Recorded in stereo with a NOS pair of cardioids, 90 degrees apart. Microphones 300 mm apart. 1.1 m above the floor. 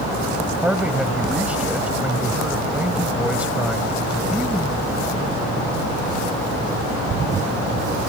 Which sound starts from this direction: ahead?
A man speaking, at 0.6 s.